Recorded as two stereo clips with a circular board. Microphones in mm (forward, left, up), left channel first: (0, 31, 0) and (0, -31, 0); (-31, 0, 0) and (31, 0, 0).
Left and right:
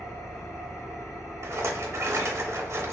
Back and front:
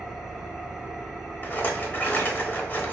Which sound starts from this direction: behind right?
A rattle, at 1.4 s.